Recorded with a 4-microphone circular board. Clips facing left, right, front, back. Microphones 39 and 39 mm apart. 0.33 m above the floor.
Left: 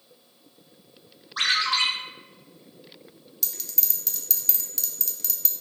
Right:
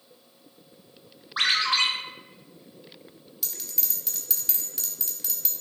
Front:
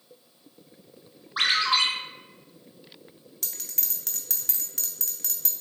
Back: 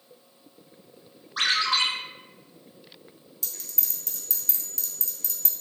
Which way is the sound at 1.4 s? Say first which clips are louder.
Even, front 1 dB; 50° right.